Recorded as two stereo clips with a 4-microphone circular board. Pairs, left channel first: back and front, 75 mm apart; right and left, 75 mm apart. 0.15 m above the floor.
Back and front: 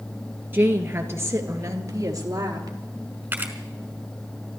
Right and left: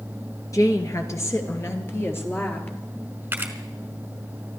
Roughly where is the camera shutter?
Ahead left.